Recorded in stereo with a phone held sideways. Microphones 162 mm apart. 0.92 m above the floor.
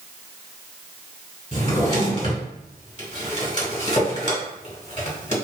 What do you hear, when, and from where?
1.5 s a drawer: 45° left (ahead or behind), 1.5 m